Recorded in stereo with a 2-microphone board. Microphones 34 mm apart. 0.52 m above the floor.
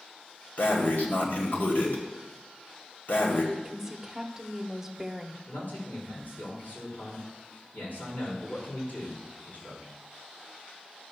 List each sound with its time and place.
0.6 s breathing: 70° left (ahead or behind), 1.8 m
3.5 s a woman speaking: 15° right (ahead or behind), 0.9 m
5.5 s a man speaking: 65° left (ahead or behind), 4.5 m